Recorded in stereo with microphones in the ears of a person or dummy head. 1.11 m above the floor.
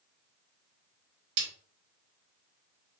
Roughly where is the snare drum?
Right.